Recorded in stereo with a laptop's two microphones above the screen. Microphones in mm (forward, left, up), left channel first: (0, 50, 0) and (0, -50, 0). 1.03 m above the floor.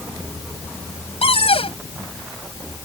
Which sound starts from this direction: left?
A cupboard door, at 1.2 s.